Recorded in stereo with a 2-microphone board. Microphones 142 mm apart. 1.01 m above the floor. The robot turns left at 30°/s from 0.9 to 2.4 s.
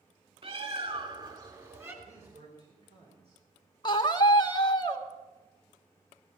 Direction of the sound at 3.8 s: 30° left (ahead or behind).